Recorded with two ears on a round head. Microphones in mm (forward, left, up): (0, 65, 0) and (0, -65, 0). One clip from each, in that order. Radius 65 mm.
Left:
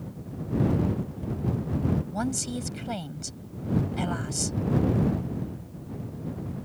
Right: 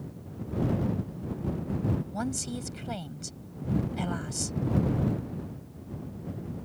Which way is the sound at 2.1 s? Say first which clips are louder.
Left 3 dB; centre (ahead or behind).